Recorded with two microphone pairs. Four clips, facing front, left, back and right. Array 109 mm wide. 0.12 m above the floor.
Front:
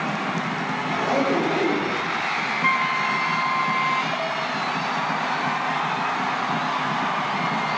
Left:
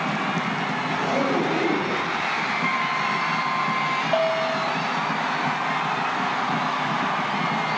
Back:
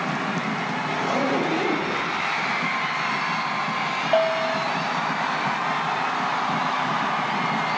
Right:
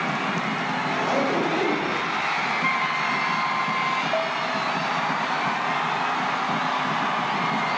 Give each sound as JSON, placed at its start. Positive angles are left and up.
{"t": 0.9, "sound": "a zipper", "azimuth_deg": -25, "distance_m": 8.5}
{"t": 2.6, "sound": "a flute", "azimuth_deg": -10, "distance_m": 0.9}
{"t": 4.1, "sound": "a bell", "azimuth_deg": 155, "distance_m": 3.0}